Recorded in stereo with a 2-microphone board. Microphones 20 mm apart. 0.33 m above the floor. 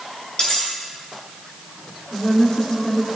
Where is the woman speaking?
60° left (ahead or behind), 3.5 m.